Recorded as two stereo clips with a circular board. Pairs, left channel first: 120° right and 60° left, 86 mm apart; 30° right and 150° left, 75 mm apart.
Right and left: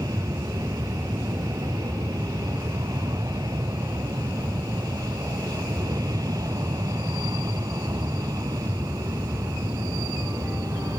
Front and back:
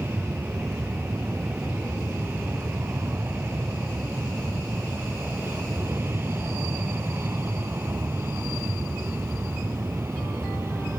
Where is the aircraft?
90° left; by 11.0 s 95° left.